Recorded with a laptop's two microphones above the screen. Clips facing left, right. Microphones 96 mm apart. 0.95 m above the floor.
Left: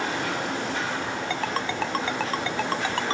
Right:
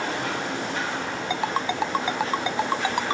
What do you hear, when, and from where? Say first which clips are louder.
1.3 s a ringtone: right 5 dB; 15° right (ahead or behind)